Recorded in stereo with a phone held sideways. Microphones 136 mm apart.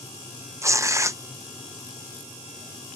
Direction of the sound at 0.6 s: 25° right (ahead or behind).